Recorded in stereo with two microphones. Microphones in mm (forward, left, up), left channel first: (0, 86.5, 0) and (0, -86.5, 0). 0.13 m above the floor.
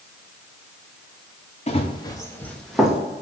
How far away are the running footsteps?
About 1.6 m.